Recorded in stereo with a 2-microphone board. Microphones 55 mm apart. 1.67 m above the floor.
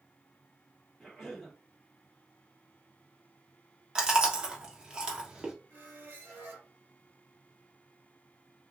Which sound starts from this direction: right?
A squeak, at 5.7 s.